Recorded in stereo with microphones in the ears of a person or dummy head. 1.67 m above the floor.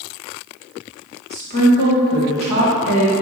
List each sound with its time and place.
1.3 s a woman speaking: 35° right (ahead or behind), 2.5 m; by 3.1 s 80° right, 2 m